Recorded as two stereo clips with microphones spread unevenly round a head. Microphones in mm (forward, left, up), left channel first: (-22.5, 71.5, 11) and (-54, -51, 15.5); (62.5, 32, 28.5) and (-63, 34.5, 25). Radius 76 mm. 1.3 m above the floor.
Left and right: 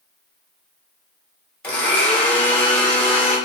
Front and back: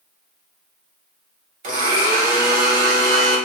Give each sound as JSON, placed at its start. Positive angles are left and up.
{"t": 1.6, "sound": "a blender", "azimuth_deg": 155, "distance_m": 1.5}